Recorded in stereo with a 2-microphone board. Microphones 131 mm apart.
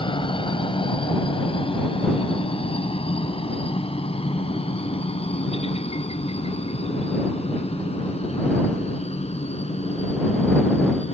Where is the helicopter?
40° left (ahead or behind); by 11.1 s 50° left (ahead or behind).